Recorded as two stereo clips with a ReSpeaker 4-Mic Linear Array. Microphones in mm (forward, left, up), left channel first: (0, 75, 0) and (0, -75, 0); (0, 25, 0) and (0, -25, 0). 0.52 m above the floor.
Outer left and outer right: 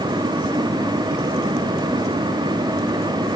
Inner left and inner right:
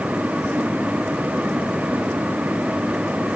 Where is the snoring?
No snoring in this recording.